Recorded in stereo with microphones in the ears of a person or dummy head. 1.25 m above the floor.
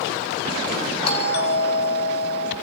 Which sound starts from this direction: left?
A doorbell, at 1.1 s.